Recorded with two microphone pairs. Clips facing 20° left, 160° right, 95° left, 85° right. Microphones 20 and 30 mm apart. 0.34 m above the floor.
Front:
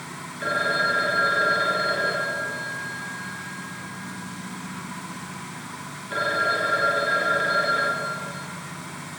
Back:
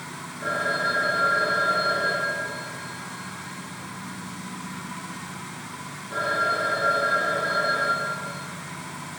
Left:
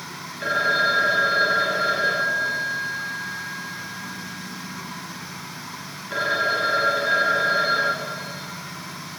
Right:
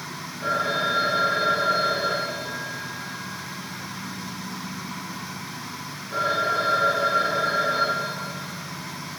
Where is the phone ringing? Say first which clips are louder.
Front 2 dB, left 4 dB; 60° left, 4 m.